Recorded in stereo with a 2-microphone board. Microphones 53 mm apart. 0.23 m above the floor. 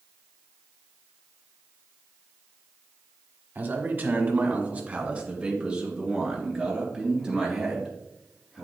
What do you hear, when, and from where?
3.5 s a man speaking: 40° right (ahead or behind), 1.2 m; by 8.7 s 10° right (ahead or behind), 4 m